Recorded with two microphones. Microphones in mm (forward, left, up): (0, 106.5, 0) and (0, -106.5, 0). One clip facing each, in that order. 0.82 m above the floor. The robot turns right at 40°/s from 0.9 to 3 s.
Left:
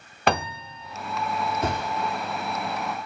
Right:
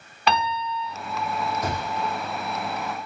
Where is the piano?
50° left (ahead or behind), 0.6 m.